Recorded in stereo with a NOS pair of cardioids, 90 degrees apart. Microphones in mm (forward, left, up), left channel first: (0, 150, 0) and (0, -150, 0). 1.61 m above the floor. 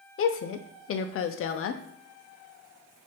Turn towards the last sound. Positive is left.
turn(degrees=45)